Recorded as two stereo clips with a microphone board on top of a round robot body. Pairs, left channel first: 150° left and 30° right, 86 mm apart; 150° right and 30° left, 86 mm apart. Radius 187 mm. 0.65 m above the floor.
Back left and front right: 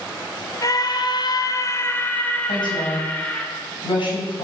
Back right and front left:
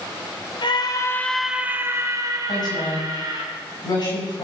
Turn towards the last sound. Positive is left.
turn(degrees=175)